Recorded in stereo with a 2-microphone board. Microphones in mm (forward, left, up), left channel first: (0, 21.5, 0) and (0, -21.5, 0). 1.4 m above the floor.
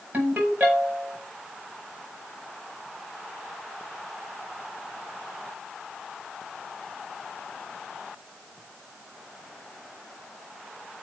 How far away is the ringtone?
About 5 m.